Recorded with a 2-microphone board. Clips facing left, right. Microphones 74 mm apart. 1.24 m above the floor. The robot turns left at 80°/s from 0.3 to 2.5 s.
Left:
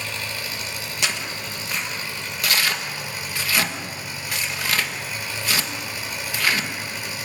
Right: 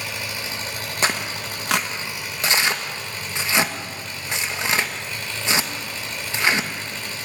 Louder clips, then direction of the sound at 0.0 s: Even; 15° right.